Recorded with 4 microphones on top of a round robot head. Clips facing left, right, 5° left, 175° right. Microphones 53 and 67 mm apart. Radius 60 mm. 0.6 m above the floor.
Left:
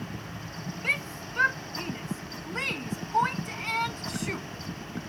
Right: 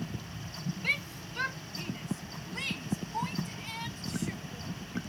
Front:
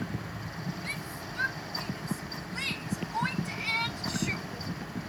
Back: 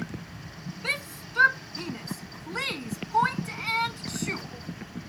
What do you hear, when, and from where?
0.8 s a shout: 160° left; by 4.5 s 125° left